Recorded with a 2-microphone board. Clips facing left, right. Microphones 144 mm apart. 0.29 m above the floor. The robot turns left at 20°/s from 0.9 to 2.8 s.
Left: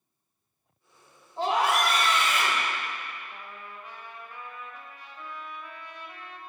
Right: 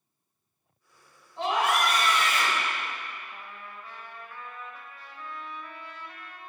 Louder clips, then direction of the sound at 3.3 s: Even; 20° left (ahead or behind).